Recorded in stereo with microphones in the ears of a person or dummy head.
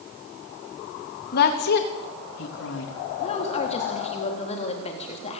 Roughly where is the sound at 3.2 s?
Left.